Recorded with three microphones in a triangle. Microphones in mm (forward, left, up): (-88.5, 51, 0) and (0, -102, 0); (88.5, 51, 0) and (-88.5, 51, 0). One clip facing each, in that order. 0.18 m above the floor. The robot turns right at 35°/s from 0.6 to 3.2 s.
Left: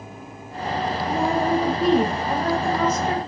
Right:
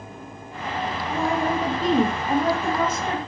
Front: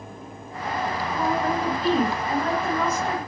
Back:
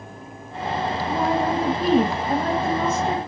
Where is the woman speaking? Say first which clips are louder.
Left 2 dB, back 3 dB; straight behind, 3 m; by 3.2 s 105° right, 3 m.